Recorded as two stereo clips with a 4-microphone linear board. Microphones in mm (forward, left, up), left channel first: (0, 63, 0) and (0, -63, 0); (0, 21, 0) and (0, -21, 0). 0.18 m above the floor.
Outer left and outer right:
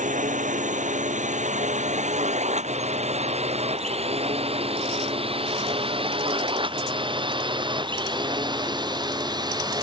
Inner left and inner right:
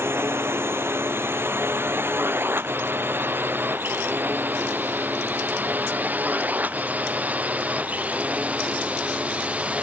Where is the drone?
80° right; by 9.8 s 35° right (ahead or behind).